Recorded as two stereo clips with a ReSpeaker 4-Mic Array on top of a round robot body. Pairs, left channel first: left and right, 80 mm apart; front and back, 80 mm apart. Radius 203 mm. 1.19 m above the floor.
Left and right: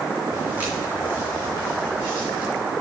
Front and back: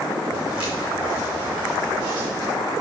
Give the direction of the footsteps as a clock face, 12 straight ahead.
6 o'clock.